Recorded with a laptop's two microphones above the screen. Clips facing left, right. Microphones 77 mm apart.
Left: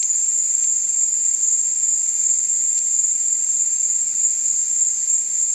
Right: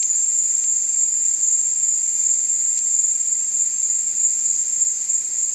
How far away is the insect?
About 1.3 m.